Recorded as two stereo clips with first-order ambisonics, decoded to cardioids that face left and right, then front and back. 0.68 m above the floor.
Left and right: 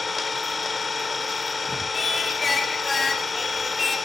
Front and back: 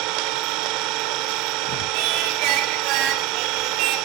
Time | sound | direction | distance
0.0 | an engine running | 165° left | 1.3 m
1.9 | singing | 165° left | 2 m